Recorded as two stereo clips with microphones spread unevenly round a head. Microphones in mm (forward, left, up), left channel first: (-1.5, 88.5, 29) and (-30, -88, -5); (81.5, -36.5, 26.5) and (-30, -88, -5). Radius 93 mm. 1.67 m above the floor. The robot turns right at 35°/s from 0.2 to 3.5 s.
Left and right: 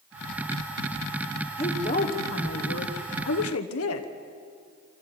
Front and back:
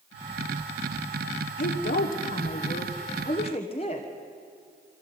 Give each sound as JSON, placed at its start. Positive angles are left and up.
{"t": 1.6, "sound": "a woman speaking", "azimuth_deg": 15, "distance_m": 1.1}